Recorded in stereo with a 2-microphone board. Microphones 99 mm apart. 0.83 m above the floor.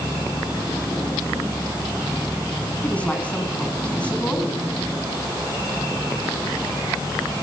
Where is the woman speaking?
15° left (ahead or behind), 6.5 m.